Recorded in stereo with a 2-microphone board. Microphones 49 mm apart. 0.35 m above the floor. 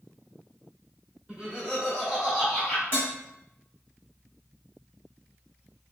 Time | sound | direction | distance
1.3 | laughter | 25° right (ahead or behind) | 1.6 m
2.9 | dishes clattering | 40° right (ahead or behind) | 1.3 m